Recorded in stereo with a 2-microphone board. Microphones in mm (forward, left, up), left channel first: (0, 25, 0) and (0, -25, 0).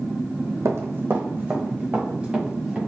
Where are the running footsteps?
70° right (ahead or behind), 0.6 m; by 2.8 s 15° right (ahead or behind), 2.0 m.